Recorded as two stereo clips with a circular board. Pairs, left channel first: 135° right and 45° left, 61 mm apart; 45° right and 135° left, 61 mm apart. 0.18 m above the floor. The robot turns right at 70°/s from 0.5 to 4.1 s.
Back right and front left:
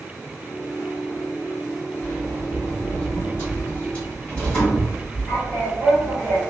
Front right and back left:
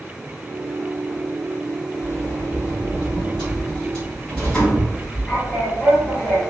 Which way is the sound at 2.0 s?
105° left.